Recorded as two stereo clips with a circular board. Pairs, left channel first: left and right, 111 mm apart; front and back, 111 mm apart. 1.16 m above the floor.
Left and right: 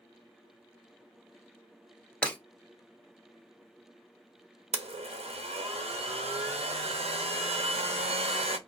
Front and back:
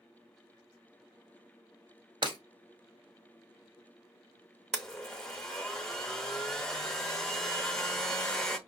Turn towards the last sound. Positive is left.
turn(degrees=-85)